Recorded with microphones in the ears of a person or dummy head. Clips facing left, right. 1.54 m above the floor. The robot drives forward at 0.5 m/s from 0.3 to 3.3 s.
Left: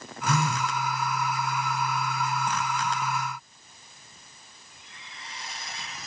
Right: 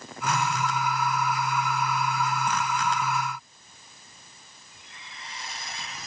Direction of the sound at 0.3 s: 85° left.